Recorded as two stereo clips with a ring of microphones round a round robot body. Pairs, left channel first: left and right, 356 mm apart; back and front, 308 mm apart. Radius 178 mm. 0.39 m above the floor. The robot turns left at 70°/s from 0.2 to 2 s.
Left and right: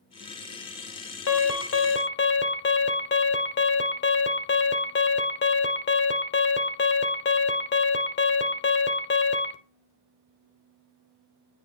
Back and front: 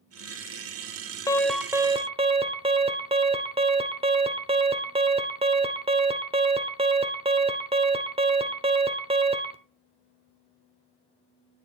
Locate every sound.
1.3 s an alarm: 110° left, 1.5 m; by 9.6 s 60° left, 1.5 m